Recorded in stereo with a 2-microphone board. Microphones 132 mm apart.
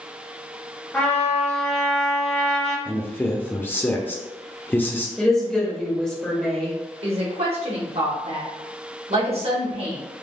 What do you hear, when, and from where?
0.9 s a trumpet: 15° left (ahead or behind), 1.0 m
2.9 s a man speaking: 15° left (ahead or behind), 0.5 m
5.2 s a woman speaking: 5° left (ahead or behind), 0.7 m
7.0 s a woman speaking: 50° right (ahead or behind), 1.0 m